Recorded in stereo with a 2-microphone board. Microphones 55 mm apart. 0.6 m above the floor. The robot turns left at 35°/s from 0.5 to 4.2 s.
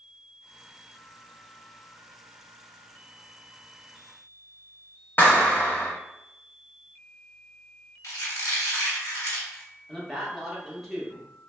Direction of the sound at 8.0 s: 75° left (ahead or behind).